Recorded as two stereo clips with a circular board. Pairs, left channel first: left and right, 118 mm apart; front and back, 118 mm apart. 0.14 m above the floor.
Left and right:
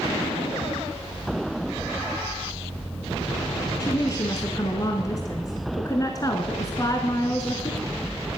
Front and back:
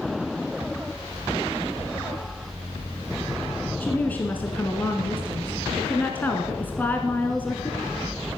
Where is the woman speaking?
65° left, 1.4 m.